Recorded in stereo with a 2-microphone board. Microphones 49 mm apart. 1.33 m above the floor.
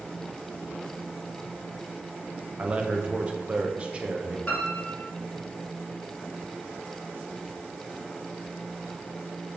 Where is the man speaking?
25° right (ahead or behind), 0.6 m.